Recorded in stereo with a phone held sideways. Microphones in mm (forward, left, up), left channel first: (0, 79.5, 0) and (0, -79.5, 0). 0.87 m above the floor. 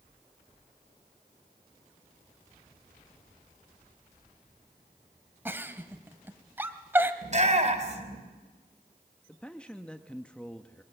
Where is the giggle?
15° right (ahead or behind), 1.3 m.